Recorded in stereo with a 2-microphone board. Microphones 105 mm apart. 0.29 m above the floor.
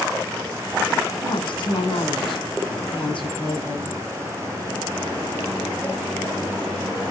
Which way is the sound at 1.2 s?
55° left (ahead or behind).